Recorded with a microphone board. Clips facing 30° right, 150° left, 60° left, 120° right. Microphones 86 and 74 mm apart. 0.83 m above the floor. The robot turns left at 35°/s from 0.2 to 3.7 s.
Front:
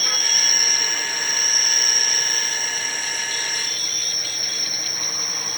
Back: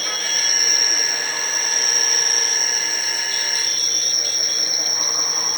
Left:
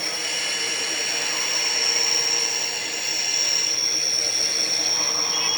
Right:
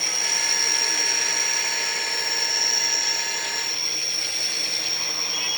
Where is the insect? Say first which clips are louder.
Even, even; 105° right, 1.0 m; by 5.6 s 130° left, 1.0 m.